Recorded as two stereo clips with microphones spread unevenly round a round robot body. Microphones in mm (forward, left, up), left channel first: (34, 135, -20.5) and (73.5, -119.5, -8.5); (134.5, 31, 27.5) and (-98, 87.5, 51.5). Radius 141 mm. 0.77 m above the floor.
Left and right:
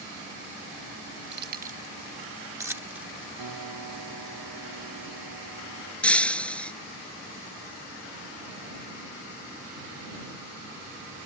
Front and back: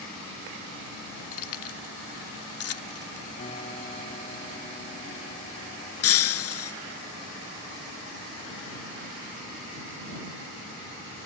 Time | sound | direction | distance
1.3 | keys jangling | 35° right | ?
3.4 | a piano | 85° right | ?
6.0 | breaking glass | 10° left | ?